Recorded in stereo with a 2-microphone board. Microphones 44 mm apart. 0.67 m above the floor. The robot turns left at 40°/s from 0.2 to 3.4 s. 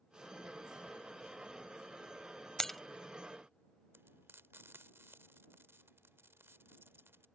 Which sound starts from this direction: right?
Frying, at 3.9 s.